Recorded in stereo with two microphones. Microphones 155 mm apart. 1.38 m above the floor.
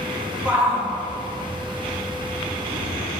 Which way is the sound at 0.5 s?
10° right (ahead or behind).